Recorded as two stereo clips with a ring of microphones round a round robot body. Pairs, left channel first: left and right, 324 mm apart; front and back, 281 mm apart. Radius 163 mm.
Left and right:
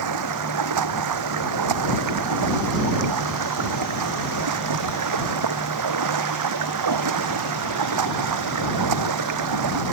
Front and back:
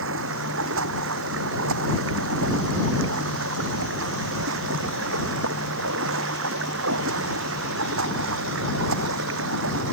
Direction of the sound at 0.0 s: 125° right.